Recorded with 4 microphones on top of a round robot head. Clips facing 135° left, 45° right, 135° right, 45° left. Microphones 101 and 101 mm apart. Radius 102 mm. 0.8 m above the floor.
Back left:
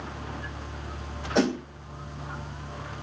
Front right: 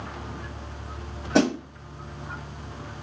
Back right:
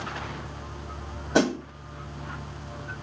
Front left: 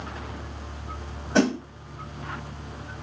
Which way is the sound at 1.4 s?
60° right.